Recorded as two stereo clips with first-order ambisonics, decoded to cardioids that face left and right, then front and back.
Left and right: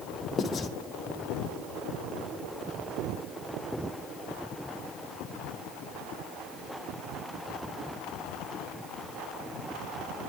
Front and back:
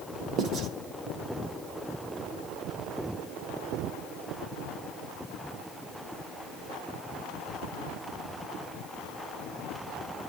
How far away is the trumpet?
I don't hear a trumpet.